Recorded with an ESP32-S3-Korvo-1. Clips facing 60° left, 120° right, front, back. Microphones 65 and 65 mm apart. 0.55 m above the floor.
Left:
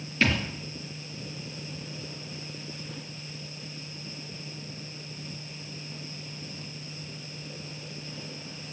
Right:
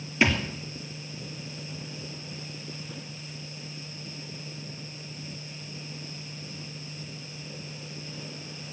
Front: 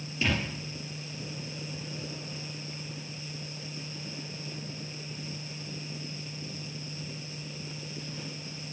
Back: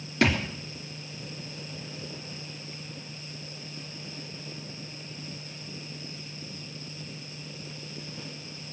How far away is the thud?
About 3 m.